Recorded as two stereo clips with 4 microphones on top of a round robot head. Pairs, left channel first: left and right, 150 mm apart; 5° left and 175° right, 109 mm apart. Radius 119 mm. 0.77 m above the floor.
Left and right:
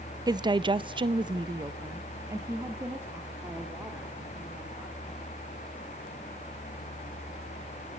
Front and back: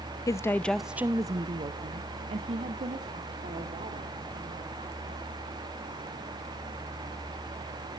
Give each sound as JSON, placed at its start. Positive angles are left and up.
{"t": 0.3, "sound": "a woman speaking", "azimuth_deg": -35, "distance_m": 0.7}